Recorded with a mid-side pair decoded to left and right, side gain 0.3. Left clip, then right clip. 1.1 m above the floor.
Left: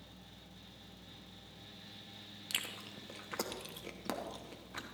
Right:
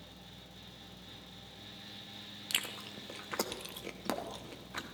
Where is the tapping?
I don't hear tapping.